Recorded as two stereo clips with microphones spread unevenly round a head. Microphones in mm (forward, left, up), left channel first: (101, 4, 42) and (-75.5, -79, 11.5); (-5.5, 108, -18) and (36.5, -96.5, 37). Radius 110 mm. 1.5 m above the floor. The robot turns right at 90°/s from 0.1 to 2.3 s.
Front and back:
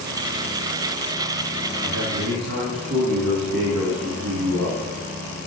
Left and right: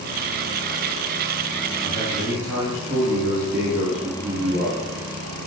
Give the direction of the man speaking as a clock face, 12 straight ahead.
7 o'clock.